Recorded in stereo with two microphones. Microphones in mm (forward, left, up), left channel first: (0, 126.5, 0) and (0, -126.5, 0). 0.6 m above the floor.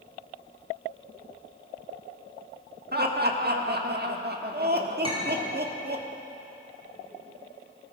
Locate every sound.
2.9 s laughter: 40° right (ahead or behind), 1.3 m
5.0 s a clink: 20° right (ahead or behind), 4.5 m